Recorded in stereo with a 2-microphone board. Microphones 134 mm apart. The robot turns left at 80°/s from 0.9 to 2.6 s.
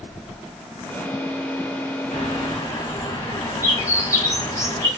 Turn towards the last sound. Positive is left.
turn(degrees=30)